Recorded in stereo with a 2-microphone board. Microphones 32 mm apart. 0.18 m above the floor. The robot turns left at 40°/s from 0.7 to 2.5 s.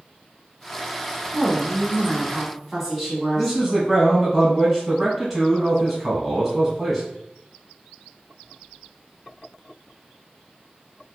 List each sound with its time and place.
1.3 s a woman speaking: 20° left (ahead or behind), 1.0 m; by 3.6 s 10° left (ahead or behind), 1.0 m
3.4 s a man speaking: centre (ahead or behind), 1.3 m